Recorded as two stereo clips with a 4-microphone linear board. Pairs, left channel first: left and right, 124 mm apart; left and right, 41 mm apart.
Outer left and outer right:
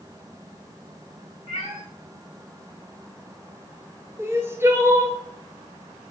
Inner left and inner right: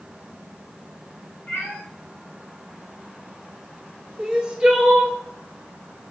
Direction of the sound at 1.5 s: 45° left (ahead or behind).